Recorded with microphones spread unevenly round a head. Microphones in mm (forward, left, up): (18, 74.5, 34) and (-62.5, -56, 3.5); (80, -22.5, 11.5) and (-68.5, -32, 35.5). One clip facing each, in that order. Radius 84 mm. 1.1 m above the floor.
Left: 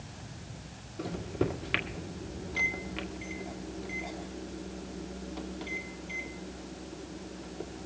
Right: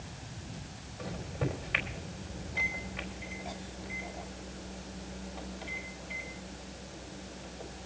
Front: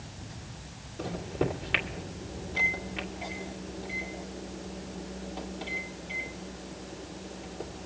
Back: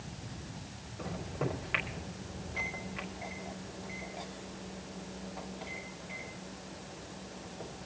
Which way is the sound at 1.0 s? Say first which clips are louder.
Left 5 dB, front 6 dB; 65° left.